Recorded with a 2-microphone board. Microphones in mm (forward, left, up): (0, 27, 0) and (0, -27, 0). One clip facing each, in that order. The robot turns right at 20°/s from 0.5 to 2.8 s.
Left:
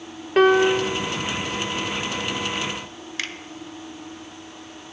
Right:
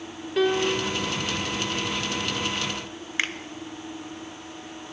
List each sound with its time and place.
0.4 s a piano: 55° left (ahead or behind), 0.7 m; by 1.0 s 50° left (ahead or behind), 0.7 m
3.2 s a finger snap: 30° right (ahead or behind), 0.7 m